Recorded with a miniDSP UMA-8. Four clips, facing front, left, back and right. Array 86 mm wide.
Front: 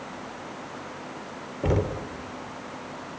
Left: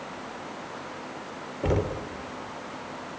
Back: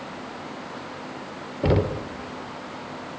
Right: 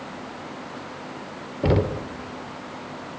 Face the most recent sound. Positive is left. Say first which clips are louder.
# right 5 dB, back 4 dB
turn(degrees=-135)